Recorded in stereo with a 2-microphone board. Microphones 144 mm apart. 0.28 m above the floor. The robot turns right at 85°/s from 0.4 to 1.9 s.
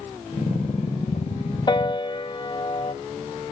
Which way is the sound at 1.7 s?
35° left (ahead or behind).